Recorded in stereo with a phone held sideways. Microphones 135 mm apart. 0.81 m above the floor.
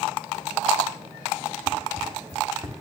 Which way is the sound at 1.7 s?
35° right (ahead or behind).